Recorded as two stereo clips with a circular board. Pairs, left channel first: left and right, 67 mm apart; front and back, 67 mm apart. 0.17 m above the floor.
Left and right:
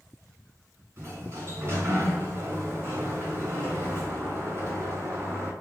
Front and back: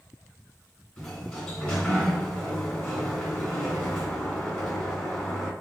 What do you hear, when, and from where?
1.0 s a sliding door: 65° right, 2.0 m